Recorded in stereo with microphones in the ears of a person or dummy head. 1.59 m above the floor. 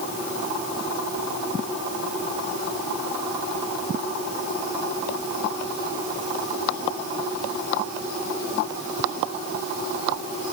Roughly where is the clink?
I don't hear a clink.